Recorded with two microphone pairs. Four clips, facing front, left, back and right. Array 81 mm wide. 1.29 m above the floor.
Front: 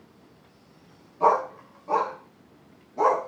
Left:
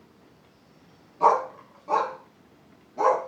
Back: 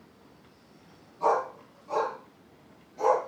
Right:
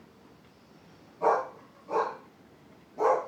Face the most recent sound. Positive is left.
turn(degrees=30)